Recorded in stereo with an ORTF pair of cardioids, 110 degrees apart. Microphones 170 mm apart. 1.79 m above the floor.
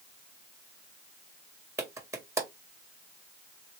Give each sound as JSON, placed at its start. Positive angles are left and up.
{"t": 1.8, "sound": "a clap", "azimuth_deg": -15, "distance_m": 1.9}